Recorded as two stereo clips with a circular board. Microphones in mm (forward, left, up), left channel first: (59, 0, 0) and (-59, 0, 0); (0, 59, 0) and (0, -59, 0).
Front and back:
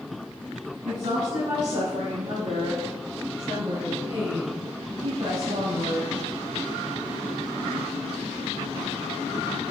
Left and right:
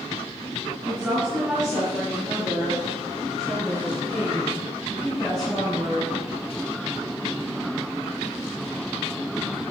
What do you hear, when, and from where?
0.8 s a woman speaking: 175° right, 4 m; by 6.2 s 170° left, 6.5 m